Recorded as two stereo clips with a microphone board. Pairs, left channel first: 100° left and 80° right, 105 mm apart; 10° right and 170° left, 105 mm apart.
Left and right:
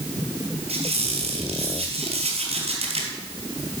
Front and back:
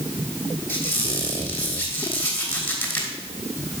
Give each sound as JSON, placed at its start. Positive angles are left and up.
{"t": 0.7, "sound": "a squeak", "azimuth_deg": -85, "distance_m": 3.0}